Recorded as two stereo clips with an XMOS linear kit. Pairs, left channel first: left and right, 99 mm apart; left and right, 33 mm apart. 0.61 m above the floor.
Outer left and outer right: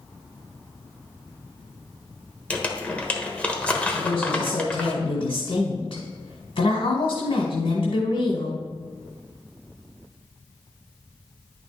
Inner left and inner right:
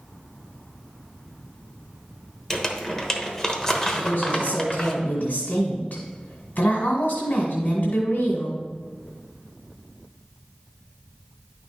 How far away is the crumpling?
About 1.2 m.